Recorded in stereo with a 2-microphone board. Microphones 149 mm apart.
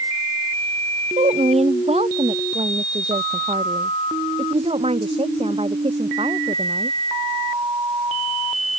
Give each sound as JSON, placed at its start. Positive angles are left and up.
{"t": 1.2, "sound": "a woman speaking", "side_deg": -45}